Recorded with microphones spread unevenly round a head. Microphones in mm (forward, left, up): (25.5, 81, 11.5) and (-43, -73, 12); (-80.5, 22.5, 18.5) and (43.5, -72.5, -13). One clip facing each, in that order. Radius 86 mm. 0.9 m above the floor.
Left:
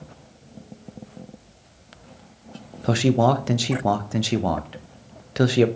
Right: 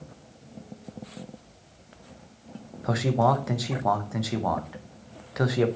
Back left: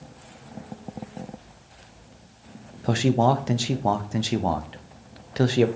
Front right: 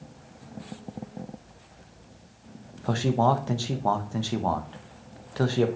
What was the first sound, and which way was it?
A man speaking, 70° left.